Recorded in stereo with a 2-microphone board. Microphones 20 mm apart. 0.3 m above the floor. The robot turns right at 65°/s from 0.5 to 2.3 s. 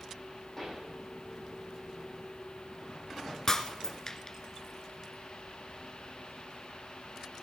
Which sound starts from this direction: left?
Breaking glass, at 3.5 s.